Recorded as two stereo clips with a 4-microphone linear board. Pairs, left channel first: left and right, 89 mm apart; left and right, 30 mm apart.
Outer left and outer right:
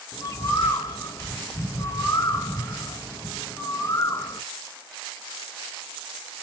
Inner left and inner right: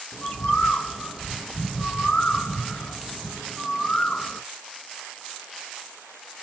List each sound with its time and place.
0.1 s a bird: 30° left (ahead or behind), 1.4 m